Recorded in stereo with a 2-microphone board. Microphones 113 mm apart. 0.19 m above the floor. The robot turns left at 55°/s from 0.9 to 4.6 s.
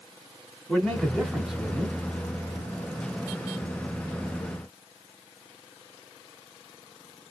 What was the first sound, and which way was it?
A man speaking, 5° left (ahead or behind).